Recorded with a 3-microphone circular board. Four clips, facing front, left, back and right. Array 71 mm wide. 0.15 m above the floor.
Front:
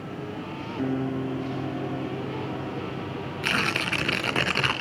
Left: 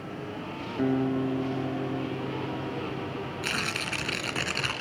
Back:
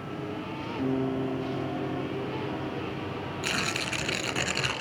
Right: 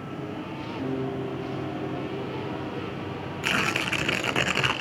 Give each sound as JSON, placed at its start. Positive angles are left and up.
{"t": 0.8, "sound": "a guitar", "azimuth_deg": 70, "distance_m": 3.0}
{"t": 3.4, "sound": "tearing paper", "azimuth_deg": -40, "distance_m": 1.3}